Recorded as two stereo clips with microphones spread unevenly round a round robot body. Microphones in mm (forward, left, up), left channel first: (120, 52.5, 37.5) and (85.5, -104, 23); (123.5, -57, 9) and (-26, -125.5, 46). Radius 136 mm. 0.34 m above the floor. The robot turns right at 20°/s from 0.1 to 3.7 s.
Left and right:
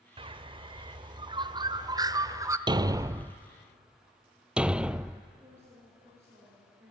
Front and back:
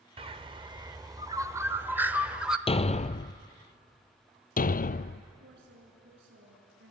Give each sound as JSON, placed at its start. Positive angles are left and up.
{"t": 0.2, "sound": "a bird", "azimuth_deg": -100, "distance_m": 1.0}
{"t": 2.7, "sound": "a thud", "azimuth_deg": -35, "distance_m": 0.7}
{"t": 5.4, "sound": "a woman speaking", "azimuth_deg": 180, "distance_m": 5.5}